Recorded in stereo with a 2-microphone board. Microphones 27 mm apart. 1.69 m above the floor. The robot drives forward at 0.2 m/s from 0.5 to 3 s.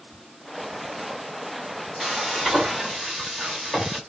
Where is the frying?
5° right (ahead or behind), 0.8 m.